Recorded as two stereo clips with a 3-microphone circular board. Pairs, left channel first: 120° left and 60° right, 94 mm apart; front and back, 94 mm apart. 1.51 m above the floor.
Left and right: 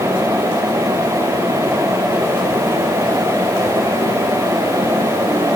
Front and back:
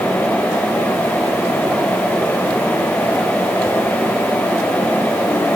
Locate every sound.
Only background noise.